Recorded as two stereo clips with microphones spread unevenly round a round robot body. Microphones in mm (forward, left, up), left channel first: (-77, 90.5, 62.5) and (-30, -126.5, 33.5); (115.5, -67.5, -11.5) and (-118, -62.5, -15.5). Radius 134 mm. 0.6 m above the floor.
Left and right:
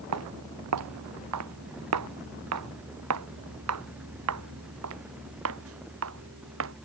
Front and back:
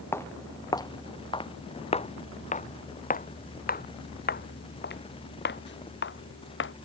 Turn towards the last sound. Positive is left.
turn(degrees=-40)